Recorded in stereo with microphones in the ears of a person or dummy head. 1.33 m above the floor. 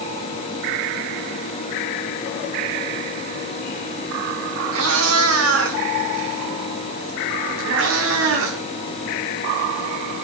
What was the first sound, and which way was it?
A cat meowing, 85° right.